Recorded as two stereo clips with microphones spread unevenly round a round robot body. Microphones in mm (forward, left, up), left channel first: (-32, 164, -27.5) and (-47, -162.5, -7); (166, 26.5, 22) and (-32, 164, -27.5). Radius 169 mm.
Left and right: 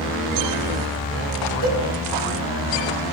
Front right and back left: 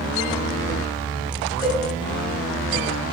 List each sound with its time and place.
1.6 s a cowbell: 75° left, 1.7 m